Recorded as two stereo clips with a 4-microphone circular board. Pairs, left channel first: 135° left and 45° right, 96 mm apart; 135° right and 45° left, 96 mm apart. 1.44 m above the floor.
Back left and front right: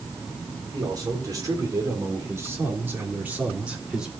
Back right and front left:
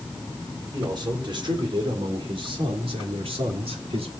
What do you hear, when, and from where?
0.7 s a man speaking: 5° left, 4 m; by 4.1 s 40° left, 3 m